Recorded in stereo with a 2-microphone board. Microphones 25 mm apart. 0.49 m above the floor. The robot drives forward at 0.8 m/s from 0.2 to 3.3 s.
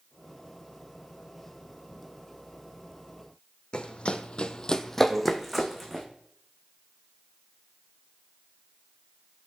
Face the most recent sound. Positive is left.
turn(degrees=-45)  # may be behind; listen again after turning